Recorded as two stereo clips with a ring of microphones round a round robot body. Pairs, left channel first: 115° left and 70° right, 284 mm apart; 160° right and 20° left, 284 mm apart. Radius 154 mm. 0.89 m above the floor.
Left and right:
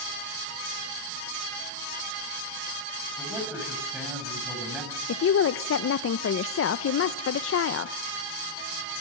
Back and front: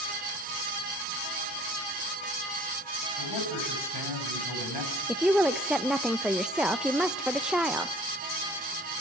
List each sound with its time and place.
3.2 s a man speaking: 150° right, 6.5 m
5.1 s a woman speaking: 110° left, 0.6 m